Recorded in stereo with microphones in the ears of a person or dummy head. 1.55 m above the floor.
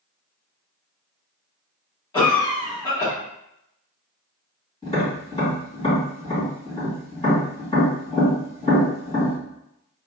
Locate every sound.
2.1 s a cough: 15° left (ahead or behind), 1.6 m
4.8 s tapping: 30° left (ahead or behind), 1.8 m